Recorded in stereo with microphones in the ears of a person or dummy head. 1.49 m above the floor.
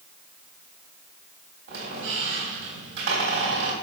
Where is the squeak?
65° right (ahead or behind), 3.5 m.